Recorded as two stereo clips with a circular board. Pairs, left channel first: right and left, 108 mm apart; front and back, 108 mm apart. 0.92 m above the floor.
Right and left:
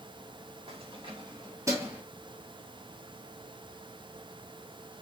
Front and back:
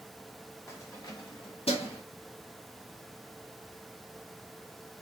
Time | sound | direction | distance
0.7 | keys jangling | 65° left | 1.6 m